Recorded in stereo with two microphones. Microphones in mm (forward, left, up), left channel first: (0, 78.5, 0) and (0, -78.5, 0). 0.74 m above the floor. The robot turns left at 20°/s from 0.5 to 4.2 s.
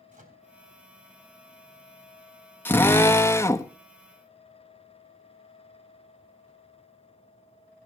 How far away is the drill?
About 1.0 m.